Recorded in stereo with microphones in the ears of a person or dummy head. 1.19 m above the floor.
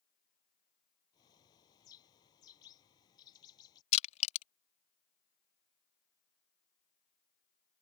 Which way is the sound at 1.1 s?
30° left (ahead or behind).